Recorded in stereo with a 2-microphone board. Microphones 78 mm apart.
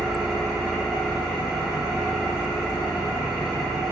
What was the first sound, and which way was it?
An engine running, 5° right (ahead or behind).